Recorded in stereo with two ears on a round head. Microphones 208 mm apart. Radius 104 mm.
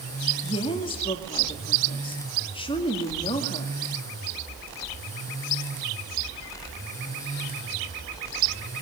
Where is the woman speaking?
20° left (ahead or behind), 2 m.